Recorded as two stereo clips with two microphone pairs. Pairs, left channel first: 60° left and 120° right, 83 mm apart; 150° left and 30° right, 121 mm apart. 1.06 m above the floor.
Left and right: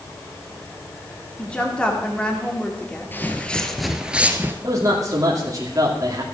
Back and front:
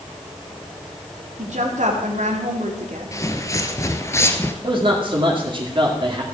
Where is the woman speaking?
20° right, 2.5 m.